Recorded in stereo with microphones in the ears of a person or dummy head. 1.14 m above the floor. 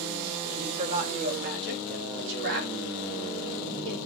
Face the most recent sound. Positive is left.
turn(degrees=-85)